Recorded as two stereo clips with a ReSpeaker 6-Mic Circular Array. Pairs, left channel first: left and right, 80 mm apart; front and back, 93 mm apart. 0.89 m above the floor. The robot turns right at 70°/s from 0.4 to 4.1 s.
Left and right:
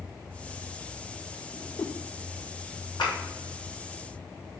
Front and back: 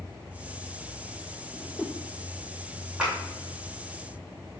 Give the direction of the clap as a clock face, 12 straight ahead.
9 o'clock.